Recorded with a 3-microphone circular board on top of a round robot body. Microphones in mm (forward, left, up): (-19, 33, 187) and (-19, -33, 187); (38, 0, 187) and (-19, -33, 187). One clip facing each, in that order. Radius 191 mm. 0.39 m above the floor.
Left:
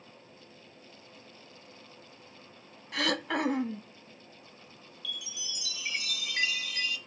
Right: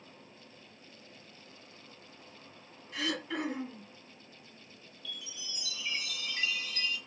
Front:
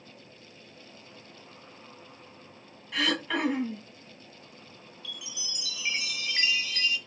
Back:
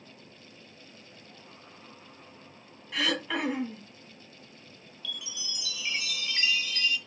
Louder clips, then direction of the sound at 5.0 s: Left 4 dB, back 3 dB; 100° left.